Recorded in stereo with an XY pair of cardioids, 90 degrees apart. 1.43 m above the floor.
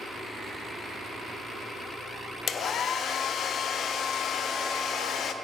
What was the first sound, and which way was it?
A hair dryer, 70° left.